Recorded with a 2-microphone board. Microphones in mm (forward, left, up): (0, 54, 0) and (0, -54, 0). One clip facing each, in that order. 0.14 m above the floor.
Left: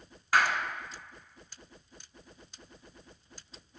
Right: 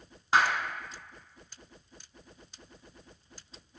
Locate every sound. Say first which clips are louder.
0.3 s a clap: right 1 dB; 25° right (ahead or behind), 1.1 m